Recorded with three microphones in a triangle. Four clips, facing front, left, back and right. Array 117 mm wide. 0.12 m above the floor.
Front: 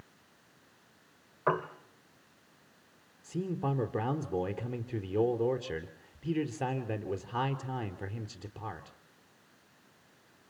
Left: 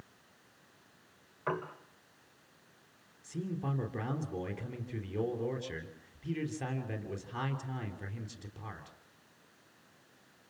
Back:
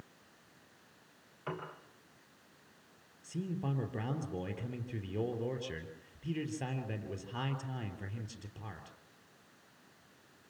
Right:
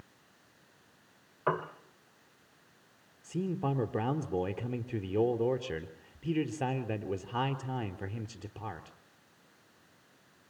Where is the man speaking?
55° right, 2.5 m.